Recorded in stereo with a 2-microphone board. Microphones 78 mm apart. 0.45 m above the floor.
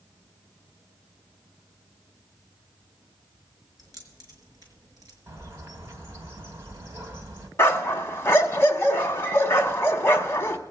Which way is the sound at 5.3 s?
35° right (ahead or behind).